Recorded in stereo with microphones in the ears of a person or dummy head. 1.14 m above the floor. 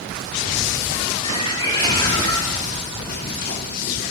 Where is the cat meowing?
30° left (ahead or behind), 6.5 m; by 3.0 s 10° left (ahead or behind), 4.5 m.